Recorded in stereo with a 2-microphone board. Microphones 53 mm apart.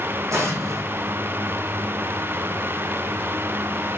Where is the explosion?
75° right (ahead or behind), 3 m.